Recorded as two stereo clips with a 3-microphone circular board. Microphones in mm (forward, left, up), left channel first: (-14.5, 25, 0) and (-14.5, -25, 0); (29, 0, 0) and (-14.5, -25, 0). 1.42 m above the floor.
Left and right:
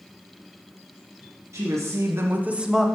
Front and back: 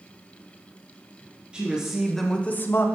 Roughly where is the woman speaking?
Right.